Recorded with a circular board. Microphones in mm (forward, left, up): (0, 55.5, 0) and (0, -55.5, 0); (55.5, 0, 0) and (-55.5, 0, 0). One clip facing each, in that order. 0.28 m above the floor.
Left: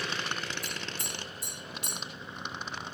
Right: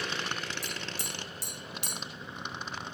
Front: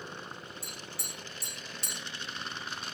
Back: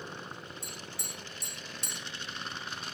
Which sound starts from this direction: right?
Tapping, at 0.6 s.